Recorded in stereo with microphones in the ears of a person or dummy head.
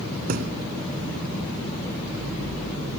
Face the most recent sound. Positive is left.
turn(degrees=-50)  # may be behind; listen again after turning